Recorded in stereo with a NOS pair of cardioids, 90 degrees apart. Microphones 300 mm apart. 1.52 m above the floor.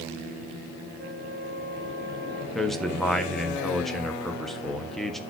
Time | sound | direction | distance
1.0 | a flute | 5° left | 5.5 m
2.5 | a man speaking | straight ahead | 1.6 m